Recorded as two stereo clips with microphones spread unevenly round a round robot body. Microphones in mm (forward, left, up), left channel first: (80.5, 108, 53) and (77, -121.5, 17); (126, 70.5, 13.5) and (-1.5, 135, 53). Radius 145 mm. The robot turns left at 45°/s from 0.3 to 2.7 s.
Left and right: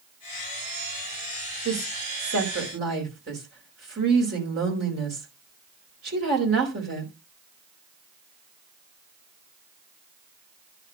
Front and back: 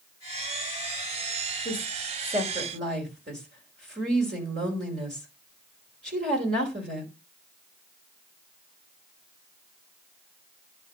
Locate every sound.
1.6 s a woman speaking: 100° right, 4.5 m; by 7.1 s 145° right, 4.5 m